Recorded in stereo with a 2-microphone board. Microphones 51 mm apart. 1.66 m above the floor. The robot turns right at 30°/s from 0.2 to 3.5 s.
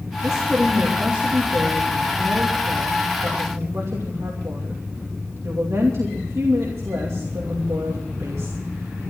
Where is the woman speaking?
175° right, 2.5 m; by 8.6 s 75° right, 2.5 m.